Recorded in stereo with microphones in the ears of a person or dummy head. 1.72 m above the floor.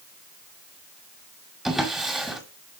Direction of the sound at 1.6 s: Centre (ahead or behind).